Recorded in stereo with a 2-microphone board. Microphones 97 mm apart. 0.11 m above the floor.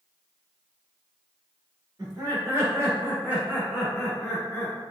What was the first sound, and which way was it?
Laughter, 40° right (ahead or behind).